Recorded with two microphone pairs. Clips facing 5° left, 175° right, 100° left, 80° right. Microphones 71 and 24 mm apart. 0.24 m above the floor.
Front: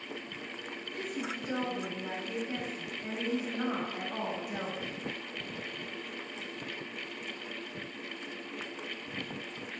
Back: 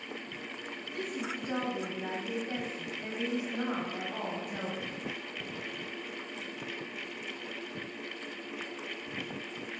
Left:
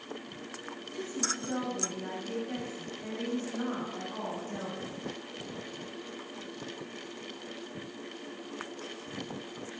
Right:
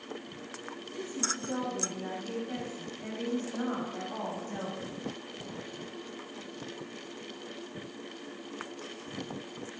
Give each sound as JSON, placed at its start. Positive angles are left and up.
{"t": 0.9, "sound": "a woman speaking", "azimuth_deg": 180, "distance_m": 1.7}